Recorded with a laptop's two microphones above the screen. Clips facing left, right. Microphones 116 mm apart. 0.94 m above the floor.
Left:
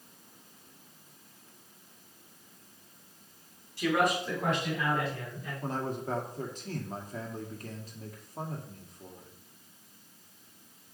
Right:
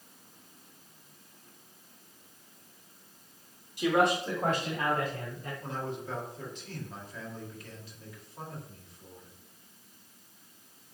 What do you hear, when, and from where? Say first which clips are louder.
3.8 s a man speaking: right 2 dB; 20° right (ahead or behind), 1.3 m; by 5.5 s 45° right (ahead or behind), 3 m
5.6 s a man speaking: left 4 dB; 40° left (ahead or behind), 1.9 m